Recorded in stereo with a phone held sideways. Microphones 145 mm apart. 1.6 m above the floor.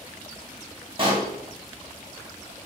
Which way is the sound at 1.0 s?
35° right (ahead or behind).